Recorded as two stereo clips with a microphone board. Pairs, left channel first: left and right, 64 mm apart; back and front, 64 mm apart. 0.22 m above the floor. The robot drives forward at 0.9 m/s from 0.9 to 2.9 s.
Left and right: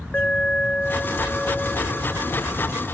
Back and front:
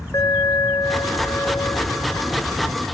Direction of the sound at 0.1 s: 160° left.